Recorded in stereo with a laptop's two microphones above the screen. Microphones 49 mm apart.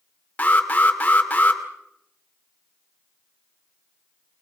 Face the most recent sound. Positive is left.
turn(degrees=30)  # may be behind; listen again after turning